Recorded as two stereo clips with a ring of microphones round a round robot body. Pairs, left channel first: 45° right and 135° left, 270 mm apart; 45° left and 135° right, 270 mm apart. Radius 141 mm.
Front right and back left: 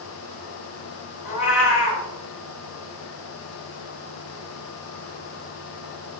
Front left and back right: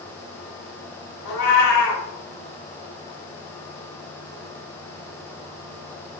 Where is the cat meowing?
5° right, 0.8 m.